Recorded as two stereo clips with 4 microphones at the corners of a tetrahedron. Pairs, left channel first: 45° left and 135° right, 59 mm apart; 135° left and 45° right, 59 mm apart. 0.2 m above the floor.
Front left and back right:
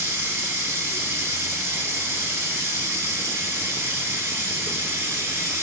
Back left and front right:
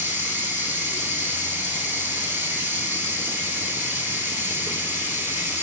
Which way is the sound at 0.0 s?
95° right.